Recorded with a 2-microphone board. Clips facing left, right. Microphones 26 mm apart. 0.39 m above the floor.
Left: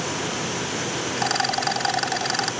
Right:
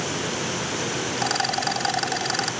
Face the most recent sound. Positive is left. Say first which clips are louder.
# left 2 dB
turn(degrees=10)  # may be behind; listen again after turning